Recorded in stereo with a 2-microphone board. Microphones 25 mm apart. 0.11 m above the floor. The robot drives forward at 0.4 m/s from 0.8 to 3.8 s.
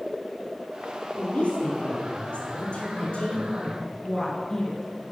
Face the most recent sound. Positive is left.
turn(degrees=20)  # may be behind; listen again after turning